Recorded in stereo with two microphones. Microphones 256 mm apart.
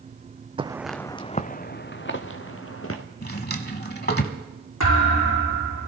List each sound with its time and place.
0.6 s footsteps: 20° right (ahead or behind), 0.6 m; by 3.0 s 60° left (ahead or behind), 1.9 m
3.2 s a drawer: 40° left (ahead or behind), 1.0 m
4.8 s a thud: 85° left, 6 m